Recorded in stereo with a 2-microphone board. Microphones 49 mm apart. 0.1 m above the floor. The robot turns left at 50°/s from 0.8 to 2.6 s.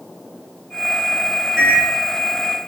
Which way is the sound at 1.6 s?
5° right (ahead or behind).